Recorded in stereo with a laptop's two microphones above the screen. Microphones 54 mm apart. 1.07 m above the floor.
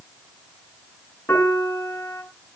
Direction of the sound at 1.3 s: 50° left (ahead or behind).